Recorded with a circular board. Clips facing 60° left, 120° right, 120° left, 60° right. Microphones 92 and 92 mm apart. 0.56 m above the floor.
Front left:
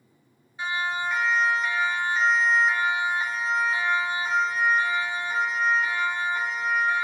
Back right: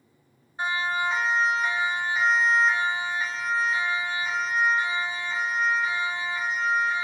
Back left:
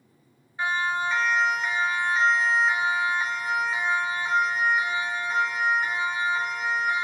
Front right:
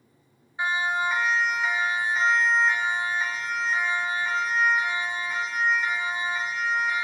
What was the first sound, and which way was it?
A siren, 120° right.